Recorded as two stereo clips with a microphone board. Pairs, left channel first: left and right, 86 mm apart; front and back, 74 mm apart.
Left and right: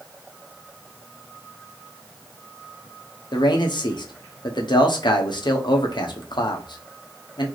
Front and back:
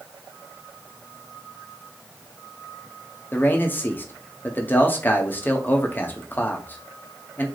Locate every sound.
3.3 s a man speaking: 65° left, 0.7 m